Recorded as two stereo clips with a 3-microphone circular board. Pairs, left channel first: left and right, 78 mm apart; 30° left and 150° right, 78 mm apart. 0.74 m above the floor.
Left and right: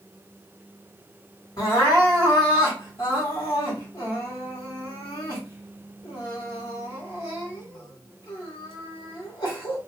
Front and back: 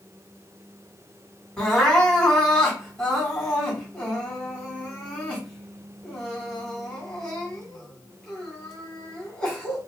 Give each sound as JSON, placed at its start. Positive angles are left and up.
{"t": 1.6, "sound": "crying", "azimuth_deg": 105, "distance_m": 1.8}